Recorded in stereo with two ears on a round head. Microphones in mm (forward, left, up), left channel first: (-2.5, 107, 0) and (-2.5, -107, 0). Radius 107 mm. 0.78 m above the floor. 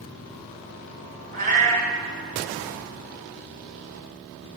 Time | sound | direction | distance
1.3 | a cat meowing | 35° right (ahead or behind) | 4 m